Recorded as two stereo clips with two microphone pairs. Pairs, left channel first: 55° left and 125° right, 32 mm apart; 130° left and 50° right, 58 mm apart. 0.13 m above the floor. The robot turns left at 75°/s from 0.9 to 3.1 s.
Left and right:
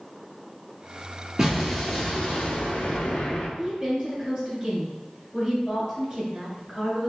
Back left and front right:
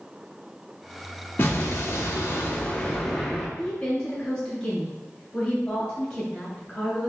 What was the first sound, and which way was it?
An explosion, 170° left.